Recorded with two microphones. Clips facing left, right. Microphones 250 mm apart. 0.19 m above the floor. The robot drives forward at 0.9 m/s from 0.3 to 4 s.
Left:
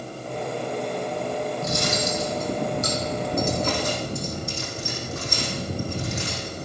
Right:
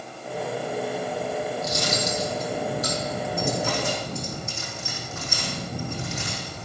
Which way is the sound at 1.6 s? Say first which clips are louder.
Left 1 dB; 60° left (ahead or behind).